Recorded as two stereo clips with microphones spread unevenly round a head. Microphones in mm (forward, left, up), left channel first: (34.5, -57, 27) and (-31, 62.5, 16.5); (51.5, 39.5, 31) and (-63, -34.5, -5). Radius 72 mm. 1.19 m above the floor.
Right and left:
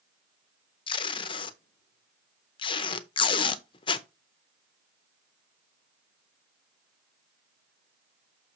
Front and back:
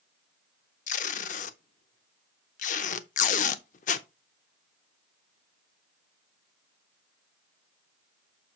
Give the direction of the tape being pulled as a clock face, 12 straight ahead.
12 o'clock.